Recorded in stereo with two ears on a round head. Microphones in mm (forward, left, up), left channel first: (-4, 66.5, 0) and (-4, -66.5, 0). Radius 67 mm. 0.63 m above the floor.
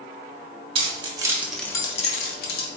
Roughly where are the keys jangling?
Right.